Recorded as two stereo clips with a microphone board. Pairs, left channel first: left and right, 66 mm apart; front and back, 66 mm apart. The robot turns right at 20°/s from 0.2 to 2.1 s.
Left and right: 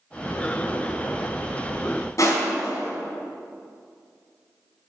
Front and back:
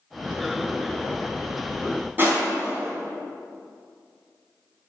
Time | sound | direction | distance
2.2 | crushing | 125° left | 3 m